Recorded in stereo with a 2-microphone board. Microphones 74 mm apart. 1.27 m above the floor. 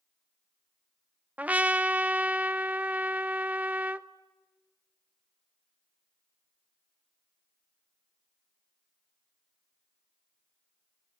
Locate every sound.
1.4 s a trumpet: 20° right (ahead or behind), 0.6 m